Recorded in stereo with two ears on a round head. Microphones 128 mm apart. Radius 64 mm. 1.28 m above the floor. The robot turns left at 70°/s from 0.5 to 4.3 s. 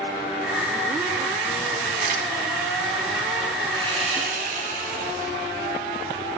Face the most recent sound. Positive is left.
turn(degrees=-70)